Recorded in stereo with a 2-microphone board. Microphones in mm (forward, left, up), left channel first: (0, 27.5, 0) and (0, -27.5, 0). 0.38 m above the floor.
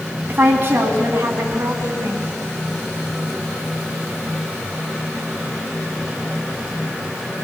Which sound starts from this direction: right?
A woman speaking, at 0.3 s.